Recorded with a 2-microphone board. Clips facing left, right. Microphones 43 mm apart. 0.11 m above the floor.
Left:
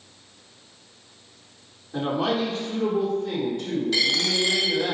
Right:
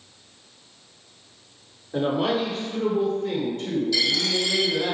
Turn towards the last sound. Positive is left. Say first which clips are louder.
# left 1 dB
turn(degrees=45)  # may be behind; listen again after turning